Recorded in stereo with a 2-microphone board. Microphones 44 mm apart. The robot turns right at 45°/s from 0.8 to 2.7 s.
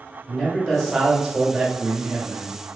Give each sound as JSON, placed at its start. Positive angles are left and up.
{"t": 0.3, "sound": "a man speaking", "azimuth_deg": 170, "distance_m": 1.2}